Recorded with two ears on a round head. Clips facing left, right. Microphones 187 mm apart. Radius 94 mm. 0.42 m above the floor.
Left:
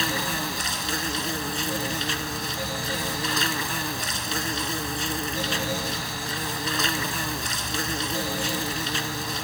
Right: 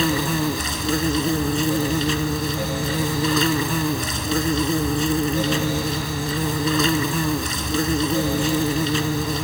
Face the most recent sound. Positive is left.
turn(degrees=-75)  # may be behind; listen again after turning